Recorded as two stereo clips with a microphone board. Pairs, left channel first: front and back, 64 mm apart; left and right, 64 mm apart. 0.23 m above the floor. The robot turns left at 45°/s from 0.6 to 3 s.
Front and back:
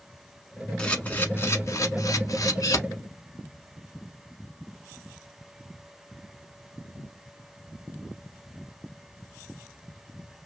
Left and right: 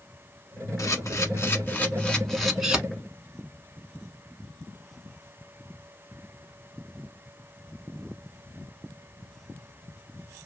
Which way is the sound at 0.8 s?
75° left.